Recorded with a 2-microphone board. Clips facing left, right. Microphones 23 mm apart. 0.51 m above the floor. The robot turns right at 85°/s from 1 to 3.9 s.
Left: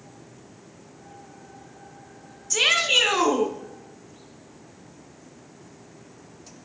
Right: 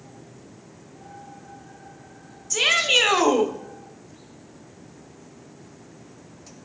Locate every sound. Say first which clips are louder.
2.5 s a shout: right 1 dB; 160° left, 1.2 m; by 3.5 s 110° right, 1.2 m